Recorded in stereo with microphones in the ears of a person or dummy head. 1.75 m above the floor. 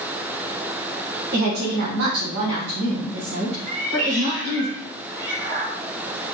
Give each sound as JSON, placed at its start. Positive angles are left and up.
{"t": 1.3, "sound": "a woman speaking", "side_deg": -50, "distance_m": 0.9}
{"t": 3.7, "sound": "a cat meowing", "side_deg": -50, "distance_m": 2.0}